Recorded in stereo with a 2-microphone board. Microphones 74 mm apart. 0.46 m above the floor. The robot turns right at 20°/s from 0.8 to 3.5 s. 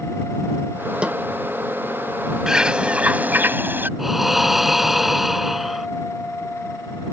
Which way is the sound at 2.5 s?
10° right (ahead or behind).